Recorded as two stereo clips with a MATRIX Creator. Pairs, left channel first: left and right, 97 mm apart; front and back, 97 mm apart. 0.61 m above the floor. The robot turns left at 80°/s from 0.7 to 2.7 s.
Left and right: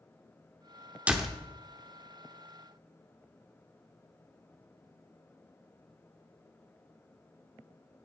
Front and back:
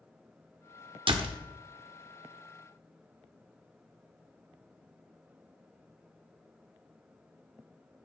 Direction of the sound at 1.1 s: 165° right.